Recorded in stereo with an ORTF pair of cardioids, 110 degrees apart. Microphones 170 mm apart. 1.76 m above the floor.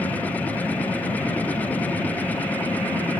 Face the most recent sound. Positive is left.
turn(degrees=10)